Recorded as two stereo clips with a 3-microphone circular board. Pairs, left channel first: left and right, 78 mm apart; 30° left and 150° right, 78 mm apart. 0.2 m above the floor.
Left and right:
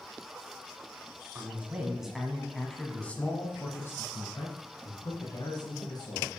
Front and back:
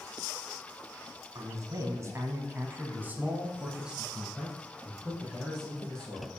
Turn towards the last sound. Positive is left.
turn(degrees=110)